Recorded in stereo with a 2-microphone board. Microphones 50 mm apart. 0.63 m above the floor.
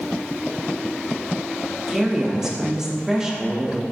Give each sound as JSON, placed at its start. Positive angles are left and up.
{"t": 1.9, "sound": "a woman speaking", "side_deg": -10, "distance_m": 0.5}